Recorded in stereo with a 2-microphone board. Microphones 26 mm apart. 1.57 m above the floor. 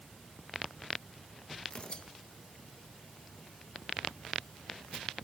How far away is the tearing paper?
About 2 m.